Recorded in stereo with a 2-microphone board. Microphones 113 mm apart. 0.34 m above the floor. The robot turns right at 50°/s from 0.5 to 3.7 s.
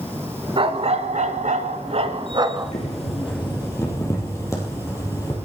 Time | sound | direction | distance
0.6 | a dog barking | 130° right | 1.1 m
2.6 | boiling | 95° left | 4.5 m